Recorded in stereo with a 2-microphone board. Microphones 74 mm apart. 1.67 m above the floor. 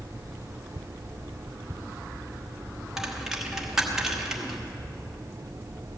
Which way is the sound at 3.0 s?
5° right (ahead or behind).